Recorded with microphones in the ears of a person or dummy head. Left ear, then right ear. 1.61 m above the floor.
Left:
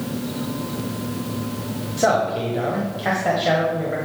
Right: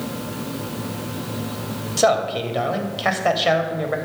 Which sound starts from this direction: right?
A man speaking, at 2.0 s.